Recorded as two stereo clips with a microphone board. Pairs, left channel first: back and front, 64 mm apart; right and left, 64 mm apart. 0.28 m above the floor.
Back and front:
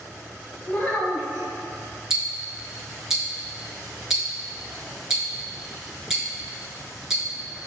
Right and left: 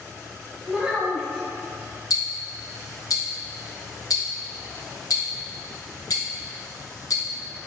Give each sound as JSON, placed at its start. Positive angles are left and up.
{"t": 0.7, "sound": "a child speaking", "azimuth_deg": 155, "distance_m": 1.1}
{"t": 2.1, "sound": "ticking", "azimuth_deg": -80, "distance_m": 0.9}